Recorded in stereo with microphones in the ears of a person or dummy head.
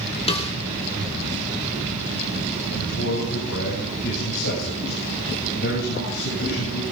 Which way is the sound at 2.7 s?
65° left (ahead or behind).